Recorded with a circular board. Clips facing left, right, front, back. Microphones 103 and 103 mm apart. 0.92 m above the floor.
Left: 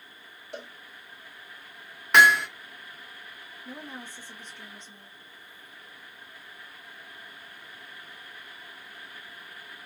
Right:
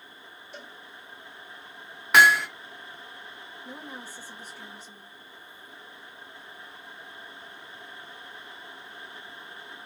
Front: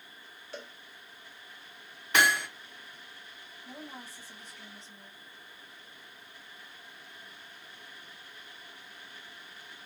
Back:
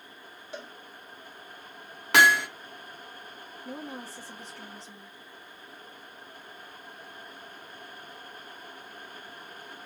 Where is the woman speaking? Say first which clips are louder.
Left 1 dB, back 6 dB; 175° right, 1.2 m.